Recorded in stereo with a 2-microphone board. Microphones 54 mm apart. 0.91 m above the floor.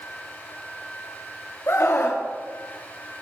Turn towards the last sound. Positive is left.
turn(degrees=55)  # may be behind; listen again after turning